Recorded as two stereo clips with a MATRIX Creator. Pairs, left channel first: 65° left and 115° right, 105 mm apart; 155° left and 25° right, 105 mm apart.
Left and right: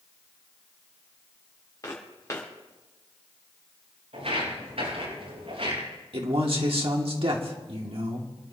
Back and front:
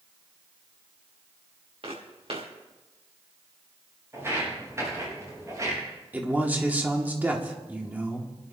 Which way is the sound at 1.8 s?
5° left.